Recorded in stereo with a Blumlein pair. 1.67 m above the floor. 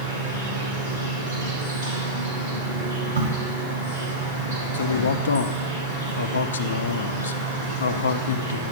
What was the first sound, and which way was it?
An insect, 70° right.